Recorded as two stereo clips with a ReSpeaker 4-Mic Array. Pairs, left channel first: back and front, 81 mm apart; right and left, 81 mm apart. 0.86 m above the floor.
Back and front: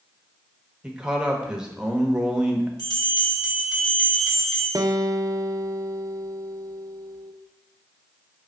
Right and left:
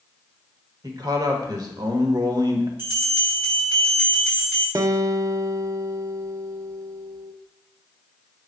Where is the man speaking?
75° left, 1.2 m.